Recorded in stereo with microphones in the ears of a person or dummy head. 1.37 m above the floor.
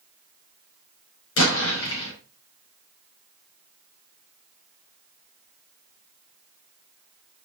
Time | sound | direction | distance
1.4 | an explosion | 75° left (ahead or behind) | 5.5 m